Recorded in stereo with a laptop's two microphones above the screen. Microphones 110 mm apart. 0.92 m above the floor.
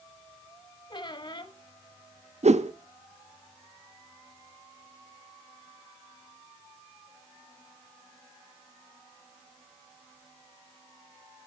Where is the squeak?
45° left (ahead or behind), 0.9 m.